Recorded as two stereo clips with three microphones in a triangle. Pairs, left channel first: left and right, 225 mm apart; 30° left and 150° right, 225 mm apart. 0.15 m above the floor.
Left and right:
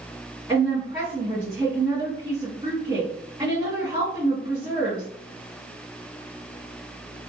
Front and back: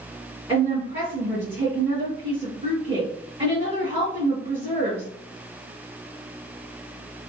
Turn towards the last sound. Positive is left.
turn(degrees=-130)